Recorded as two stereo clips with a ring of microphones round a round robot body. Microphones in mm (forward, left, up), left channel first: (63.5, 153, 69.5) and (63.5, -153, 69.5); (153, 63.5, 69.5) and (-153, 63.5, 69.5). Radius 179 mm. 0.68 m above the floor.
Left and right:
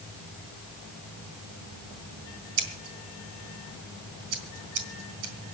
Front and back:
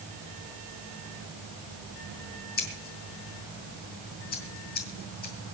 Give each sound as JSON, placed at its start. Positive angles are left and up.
{"t": 2.6, "sound": "scissors", "azimuth_deg": -65, "distance_m": 2.5}